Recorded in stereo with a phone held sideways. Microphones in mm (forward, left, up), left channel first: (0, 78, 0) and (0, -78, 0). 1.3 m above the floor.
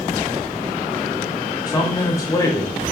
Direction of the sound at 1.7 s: 20° left (ahead or behind).